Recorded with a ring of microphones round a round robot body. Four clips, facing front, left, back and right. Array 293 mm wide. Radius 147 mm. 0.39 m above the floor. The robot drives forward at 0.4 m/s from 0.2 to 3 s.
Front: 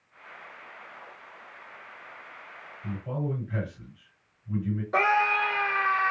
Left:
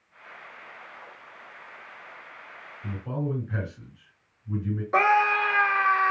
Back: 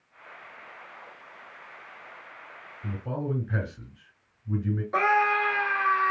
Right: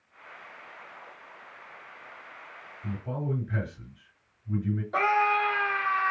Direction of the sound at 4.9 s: 85° left.